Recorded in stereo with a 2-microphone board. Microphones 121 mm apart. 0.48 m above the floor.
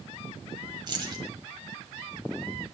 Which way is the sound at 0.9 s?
40° right (ahead or behind).